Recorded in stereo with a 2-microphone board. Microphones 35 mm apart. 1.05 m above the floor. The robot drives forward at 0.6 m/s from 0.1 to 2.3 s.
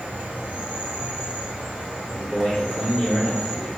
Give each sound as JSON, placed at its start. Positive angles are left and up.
{"t": 0.0, "sound": "an insect", "side_deg": -45, "distance_m": 1.3}
{"t": 2.1, "sound": "a man speaking", "side_deg": 10, "distance_m": 1.7}